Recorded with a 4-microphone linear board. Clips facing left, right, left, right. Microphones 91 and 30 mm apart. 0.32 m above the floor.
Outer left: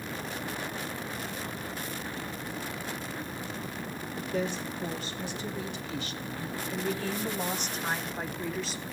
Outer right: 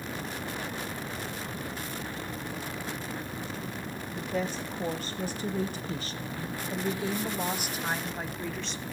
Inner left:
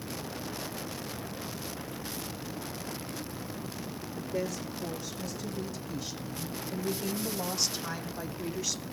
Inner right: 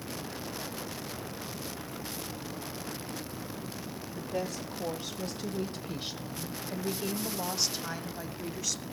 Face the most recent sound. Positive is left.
turn(degrees=5)  # may be behind; listen again after turning